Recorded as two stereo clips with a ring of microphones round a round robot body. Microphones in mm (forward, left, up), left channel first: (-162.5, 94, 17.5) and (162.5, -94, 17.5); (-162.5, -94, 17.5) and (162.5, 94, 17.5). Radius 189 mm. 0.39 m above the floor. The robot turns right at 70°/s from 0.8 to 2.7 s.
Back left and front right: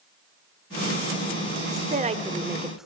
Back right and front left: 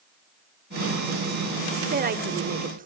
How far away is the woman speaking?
About 0.8 m.